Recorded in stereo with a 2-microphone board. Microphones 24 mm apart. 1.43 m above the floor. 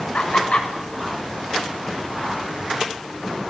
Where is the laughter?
60° left (ahead or behind), 7.5 m.